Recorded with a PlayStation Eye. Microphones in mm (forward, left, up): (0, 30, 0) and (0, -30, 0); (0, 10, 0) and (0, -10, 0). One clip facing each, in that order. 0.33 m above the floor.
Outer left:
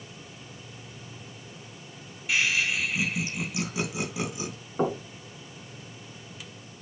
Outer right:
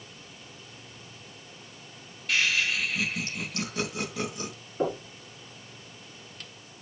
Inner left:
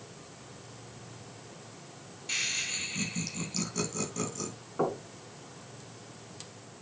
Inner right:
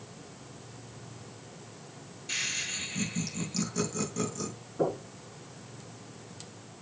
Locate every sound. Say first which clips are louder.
2.3 s laughter: even, inner left 1 dB; 10° left (ahead or behind), 3 m
4.8 s knocking: outer left 2 dB, inner right 1 dB; 70° left (ahead or behind), 3.5 m